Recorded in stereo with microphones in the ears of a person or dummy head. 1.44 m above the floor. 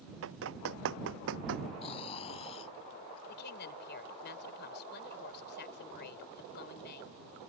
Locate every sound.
0.2 s running footsteps: 75° right (ahead or behind); by 1.7 s 65° right (ahead or behind)
1.8 s snoring: 30° left (ahead or behind)
3.3 s a woman speaking: 60° left (ahead or behind)